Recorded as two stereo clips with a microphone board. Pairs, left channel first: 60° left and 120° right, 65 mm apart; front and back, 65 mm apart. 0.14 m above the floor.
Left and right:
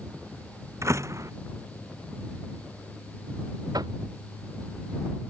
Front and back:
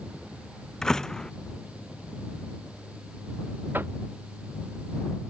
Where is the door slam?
80° right.